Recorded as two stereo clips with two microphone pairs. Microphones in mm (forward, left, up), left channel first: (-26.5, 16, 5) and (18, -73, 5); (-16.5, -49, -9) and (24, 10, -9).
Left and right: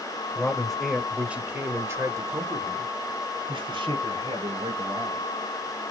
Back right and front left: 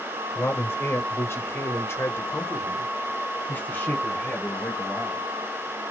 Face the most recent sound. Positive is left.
turn(degrees=-55)